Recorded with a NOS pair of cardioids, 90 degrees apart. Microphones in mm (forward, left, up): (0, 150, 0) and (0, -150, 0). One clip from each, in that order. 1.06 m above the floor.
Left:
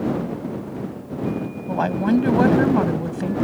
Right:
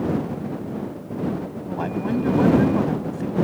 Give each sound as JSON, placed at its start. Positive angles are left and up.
{"t": 1.7, "sound": "a woman speaking", "azimuth_deg": 50}